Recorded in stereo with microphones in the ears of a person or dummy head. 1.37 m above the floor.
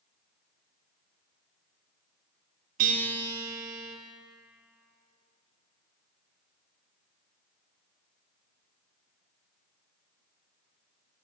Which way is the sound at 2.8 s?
45° right (ahead or behind).